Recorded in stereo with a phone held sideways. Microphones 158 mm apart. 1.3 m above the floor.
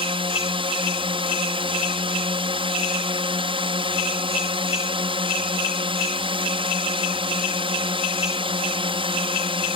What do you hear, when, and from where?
0.0 s a drone: 35° right (ahead or behind)